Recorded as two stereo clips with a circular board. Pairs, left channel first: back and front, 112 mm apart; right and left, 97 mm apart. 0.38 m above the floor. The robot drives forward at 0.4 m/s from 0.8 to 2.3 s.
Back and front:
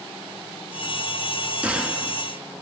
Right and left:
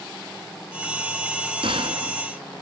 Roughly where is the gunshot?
Left.